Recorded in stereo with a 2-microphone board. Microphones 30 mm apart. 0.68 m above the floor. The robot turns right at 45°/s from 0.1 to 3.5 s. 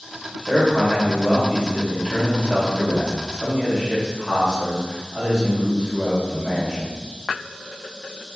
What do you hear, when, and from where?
0.5 s a man speaking: 150° right, 1.3 m; by 6.9 s 15° right, 1.3 m